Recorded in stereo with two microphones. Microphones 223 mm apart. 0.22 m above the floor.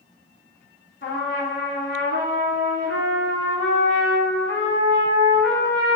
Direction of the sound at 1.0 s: 60° left (ahead or behind).